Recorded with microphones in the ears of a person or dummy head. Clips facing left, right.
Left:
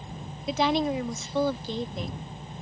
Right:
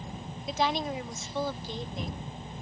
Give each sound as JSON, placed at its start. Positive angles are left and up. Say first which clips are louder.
{"t": 0.5, "sound": "a woman speaking", "louder": "left 5 dB", "side_deg": 60}